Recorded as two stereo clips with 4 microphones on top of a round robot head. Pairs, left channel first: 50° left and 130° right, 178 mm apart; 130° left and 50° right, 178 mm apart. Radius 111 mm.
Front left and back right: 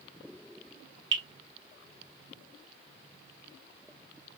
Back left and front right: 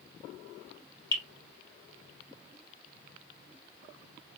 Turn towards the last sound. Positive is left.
turn(degrees=-155)